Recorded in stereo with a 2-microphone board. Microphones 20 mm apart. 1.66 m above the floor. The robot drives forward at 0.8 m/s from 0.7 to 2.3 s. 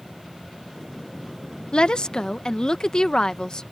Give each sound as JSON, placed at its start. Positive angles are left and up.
{"t": 1.7, "sound": "a woman speaking", "side_deg": 55}